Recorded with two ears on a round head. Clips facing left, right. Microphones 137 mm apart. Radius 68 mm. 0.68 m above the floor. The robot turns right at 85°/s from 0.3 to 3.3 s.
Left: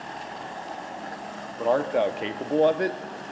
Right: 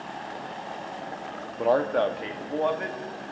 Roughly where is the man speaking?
Ahead.